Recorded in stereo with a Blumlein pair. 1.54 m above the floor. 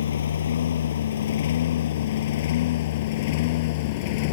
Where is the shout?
No shout in this recording.